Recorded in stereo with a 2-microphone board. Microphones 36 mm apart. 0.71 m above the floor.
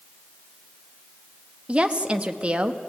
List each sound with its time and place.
1.7 s a woman speaking: 30° right (ahead or behind), 0.9 m